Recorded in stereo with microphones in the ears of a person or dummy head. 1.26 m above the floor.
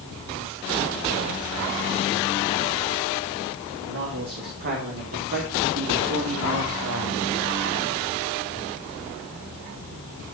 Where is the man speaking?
65° right (ahead or behind), 4 m; by 7.3 s 75° right (ahead or behind), 2 m.